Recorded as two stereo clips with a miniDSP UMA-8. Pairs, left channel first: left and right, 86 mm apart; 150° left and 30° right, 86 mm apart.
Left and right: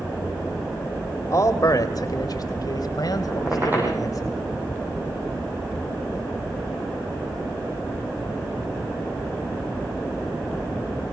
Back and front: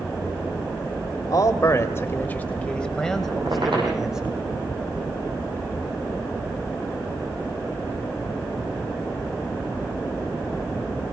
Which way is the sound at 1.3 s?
125° left.